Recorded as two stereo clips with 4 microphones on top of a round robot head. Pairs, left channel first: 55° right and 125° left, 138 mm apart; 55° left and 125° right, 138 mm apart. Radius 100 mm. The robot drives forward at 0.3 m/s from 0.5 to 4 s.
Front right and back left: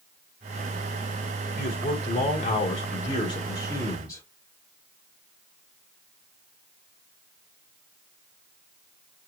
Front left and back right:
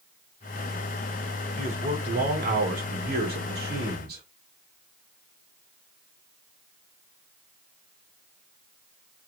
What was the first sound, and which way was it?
A man speaking, 80° right.